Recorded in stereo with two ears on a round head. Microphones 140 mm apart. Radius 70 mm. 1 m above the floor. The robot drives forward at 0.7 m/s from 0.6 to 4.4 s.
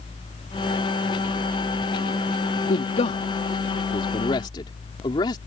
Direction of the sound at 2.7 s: 45° left (ahead or behind).